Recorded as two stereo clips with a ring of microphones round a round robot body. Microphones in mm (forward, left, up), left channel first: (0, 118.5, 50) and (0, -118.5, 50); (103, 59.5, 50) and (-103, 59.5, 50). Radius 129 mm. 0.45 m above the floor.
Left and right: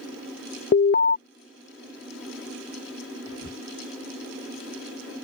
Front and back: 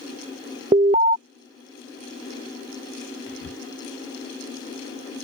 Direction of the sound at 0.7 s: 130° left.